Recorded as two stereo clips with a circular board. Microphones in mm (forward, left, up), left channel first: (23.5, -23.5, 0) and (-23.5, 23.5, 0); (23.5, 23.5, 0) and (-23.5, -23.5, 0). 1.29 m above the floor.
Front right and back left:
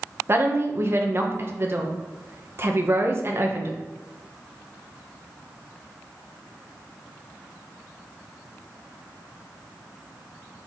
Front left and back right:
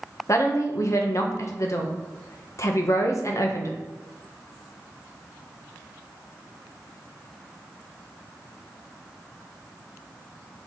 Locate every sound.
0.3 s a woman speaking: 85° left, 1.3 m